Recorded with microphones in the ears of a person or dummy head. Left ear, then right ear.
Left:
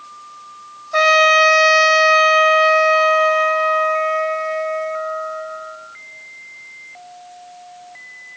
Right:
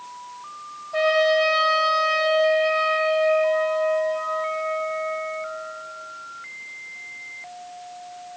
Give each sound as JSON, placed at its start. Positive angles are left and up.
{"t": 0.9, "sound": "a trumpet", "side_deg": 70, "distance_m": 2.5}